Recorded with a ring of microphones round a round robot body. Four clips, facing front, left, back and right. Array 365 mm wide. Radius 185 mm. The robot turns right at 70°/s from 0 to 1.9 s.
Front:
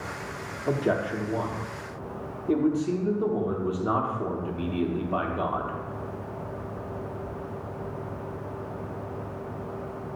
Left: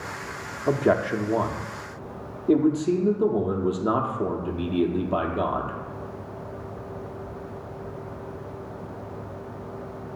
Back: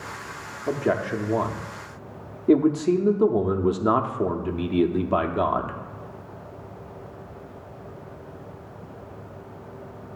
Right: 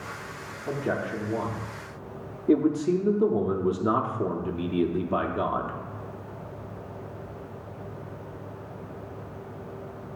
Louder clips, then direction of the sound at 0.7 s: Left 8 dB, back 2 dB; 90° left.